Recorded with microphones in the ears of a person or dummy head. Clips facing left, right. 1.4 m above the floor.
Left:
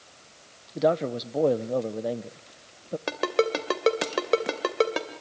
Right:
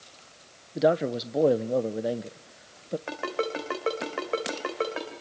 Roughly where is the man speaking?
Centre.